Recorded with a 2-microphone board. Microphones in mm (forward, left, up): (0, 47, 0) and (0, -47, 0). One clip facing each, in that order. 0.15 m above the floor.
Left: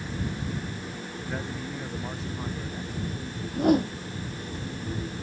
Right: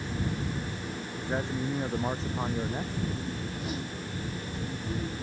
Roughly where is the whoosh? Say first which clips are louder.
Left 13 dB; left.